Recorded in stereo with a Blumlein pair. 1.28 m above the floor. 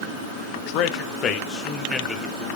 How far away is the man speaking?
About 1.1 m.